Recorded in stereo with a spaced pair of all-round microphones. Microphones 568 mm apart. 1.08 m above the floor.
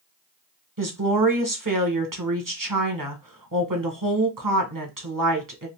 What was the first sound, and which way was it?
A woman speaking, 35° right (ahead or behind).